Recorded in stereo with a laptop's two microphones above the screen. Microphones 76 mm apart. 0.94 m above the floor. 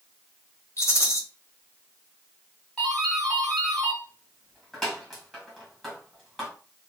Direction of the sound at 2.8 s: 10° left (ahead or behind).